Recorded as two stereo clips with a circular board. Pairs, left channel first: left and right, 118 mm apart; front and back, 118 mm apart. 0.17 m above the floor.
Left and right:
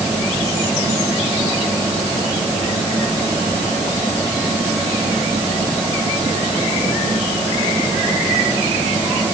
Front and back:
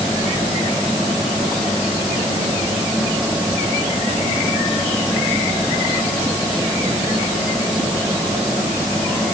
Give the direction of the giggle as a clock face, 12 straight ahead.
No giggle in this recording.